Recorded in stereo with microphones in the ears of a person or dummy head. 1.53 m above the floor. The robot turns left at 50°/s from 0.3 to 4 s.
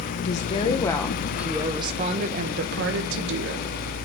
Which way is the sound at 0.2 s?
50° left.